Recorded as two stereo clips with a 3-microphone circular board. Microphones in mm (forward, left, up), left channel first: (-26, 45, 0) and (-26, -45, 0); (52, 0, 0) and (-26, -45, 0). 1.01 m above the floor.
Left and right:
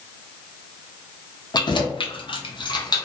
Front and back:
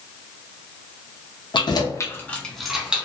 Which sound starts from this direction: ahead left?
Keys jangling, at 1.5 s.